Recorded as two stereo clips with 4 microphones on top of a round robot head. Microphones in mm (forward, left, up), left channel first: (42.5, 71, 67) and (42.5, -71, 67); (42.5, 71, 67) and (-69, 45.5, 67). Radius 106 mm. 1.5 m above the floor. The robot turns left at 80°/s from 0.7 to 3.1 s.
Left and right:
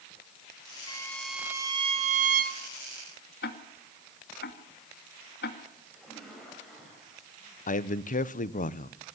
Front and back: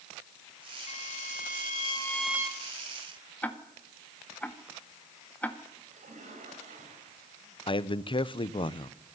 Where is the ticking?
90° left, 2 m.